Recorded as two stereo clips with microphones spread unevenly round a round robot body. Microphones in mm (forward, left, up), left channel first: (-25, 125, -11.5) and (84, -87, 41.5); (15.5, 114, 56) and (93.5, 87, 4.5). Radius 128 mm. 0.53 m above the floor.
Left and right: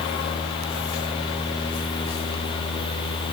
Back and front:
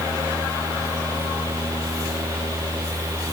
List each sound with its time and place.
Only background noise.